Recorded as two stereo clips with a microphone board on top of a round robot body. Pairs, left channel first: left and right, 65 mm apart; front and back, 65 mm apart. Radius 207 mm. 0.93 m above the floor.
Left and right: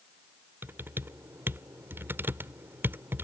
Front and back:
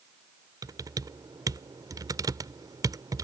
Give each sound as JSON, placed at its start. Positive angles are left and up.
{"t": 0.6, "sound": "typing on a keyboard", "azimuth_deg": -150}